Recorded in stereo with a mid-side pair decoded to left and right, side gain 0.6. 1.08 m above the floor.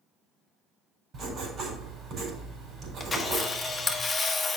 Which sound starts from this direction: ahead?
A camera shutter, at 3.0 s.